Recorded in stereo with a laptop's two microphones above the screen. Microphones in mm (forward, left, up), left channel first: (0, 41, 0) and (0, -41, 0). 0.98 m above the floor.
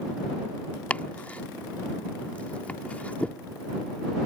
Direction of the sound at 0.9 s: 20° left (ahead or behind).